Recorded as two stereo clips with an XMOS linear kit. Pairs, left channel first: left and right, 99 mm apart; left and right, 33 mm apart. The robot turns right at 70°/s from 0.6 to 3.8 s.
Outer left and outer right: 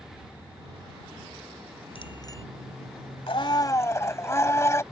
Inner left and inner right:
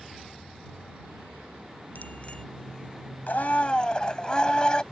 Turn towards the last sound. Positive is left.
turn(degrees=150)